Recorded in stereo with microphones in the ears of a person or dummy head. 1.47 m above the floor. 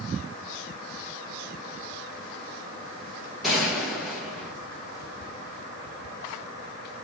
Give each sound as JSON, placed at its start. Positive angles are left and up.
{"t": 3.4, "sound": "a gunshot", "side_deg": -5, "distance_m": 1.6}